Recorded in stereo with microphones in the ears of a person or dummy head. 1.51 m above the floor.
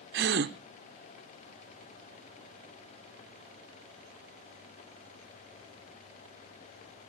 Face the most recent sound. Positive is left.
turn(degrees=-55)  # may be behind; listen again after turning